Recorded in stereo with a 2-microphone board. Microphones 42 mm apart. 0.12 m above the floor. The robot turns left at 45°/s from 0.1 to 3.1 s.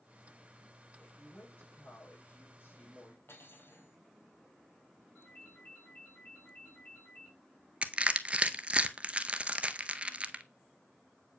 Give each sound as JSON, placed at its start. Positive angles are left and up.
{"t": 1.0, "sound": "a woman speaking", "azimuth_deg": 150, "distance_m": 5.5}
{"t": 3.3, "sound": "cutlery clinking", "side_deg": 70, "distance_m": 2.5}
{"t": 5.2, "sound": "a ringtone", "side_deg": 50, "distance_m": 4.5}
{"t": 7.8, "sound": "crushing", "side_deg": -30, "distance_m": 0.6}